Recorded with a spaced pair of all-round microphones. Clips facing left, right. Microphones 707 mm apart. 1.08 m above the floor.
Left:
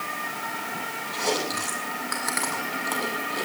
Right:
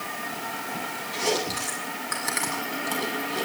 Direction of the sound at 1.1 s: 55° right (ahead or behind).